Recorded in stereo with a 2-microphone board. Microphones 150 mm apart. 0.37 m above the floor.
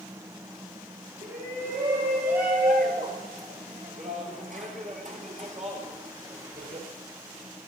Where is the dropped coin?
No dropped coin in this recording.